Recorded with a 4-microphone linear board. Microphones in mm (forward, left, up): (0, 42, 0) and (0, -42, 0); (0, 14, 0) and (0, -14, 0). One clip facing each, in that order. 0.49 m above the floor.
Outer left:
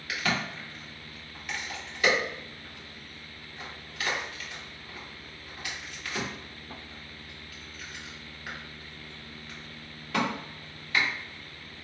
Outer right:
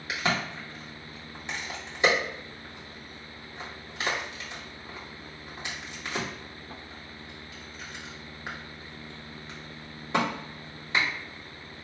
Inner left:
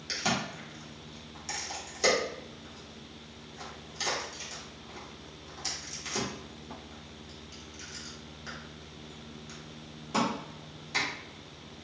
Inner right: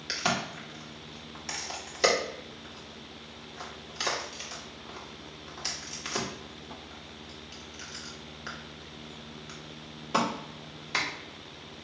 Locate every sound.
0.1 s a crack: 25° right (ahead or behind), 1.5 m